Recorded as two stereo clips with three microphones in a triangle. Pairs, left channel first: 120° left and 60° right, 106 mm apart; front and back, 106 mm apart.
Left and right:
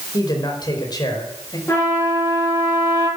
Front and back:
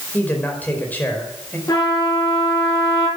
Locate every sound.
0.1 s a man speaking: 75° left, 4.5 m
1.7 s a trumpet: 55° left, 9.5 m